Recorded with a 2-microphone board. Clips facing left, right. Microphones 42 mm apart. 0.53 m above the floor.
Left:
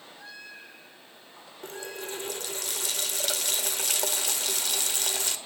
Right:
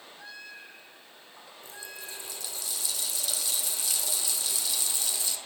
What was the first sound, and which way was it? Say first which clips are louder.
A running tap: left 7 dB; 55° left (ahead or behind).